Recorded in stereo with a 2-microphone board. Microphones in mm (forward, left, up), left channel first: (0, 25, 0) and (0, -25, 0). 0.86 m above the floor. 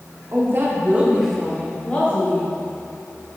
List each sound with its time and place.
0.3 s a woman speaking: 55° right (ahead or behind), 1.5 m; by 2.5 s 40° left (ahead or behind), 2 m